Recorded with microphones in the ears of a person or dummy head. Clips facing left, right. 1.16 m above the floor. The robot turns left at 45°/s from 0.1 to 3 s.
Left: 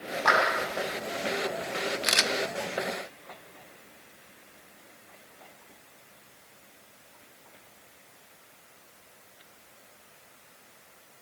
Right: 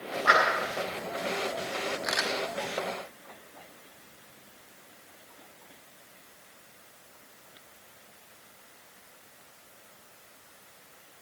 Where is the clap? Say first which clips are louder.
Even; 80° left, 7.5 m; by 0.4 s 90° left, 7.5 m.